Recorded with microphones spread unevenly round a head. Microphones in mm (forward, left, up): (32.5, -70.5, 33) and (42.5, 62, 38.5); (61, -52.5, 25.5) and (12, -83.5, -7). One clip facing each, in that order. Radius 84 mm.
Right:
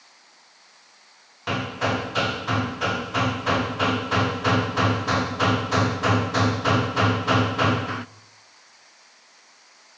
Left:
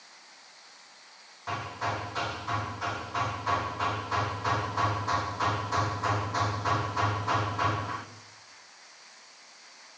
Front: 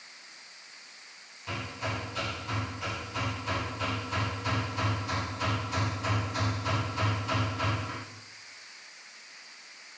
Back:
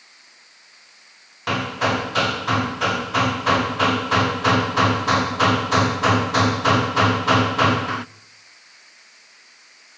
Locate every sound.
1.5 s hammering: 135° right, 0.7 m